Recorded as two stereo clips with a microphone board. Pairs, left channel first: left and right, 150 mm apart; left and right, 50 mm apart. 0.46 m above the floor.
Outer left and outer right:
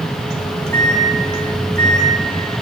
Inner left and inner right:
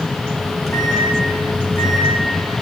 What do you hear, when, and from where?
0.4 s a microwave: 5° left (ahead or behind), 4.5 m